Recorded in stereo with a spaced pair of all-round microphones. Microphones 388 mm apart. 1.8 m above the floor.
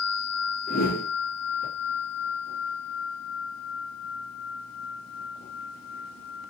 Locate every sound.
0.7 s a whoosh: 25° left (ahead or behind), 0.9 m